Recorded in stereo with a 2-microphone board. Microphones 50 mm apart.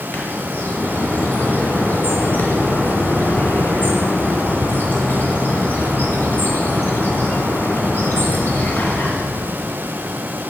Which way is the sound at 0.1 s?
40° left (ahead or behind).